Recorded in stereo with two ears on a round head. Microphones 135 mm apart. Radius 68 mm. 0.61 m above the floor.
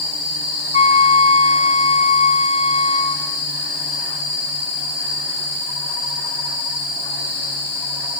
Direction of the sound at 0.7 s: 45° left (ahead or behind).